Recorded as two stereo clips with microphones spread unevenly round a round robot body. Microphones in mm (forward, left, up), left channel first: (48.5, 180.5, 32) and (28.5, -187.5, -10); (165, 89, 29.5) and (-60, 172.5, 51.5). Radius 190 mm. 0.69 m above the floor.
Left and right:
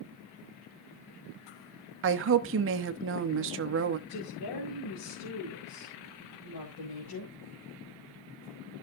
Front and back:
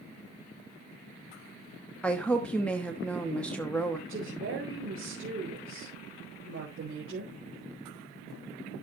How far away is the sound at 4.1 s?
About 3.5 m.